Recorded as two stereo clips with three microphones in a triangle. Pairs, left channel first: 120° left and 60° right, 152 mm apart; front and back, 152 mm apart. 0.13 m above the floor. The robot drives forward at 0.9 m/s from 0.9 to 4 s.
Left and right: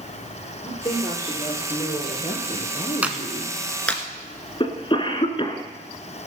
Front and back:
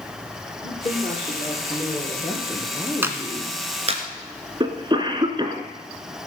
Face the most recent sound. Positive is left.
turn(degrees=145)